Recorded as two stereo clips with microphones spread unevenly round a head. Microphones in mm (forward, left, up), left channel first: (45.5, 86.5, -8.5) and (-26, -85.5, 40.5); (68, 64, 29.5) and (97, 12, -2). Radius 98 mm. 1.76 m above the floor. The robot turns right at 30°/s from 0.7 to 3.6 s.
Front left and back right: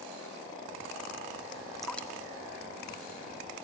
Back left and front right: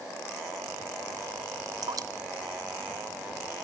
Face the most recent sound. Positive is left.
turn(degrees=25)